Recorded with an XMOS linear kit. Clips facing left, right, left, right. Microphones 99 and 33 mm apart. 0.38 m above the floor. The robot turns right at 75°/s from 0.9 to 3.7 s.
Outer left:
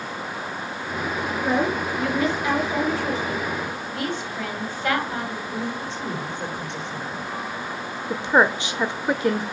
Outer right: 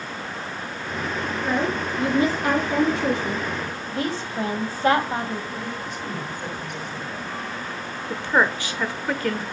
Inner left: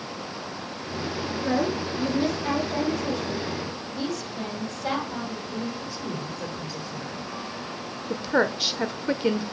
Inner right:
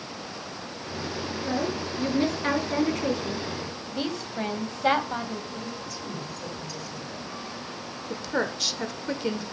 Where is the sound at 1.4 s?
155° left, 5 m; by 3.4 s 55° right, 5 m.